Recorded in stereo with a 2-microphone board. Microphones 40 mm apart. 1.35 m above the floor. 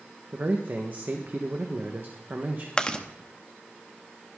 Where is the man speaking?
45° right (ahead or behind), 1.4 m.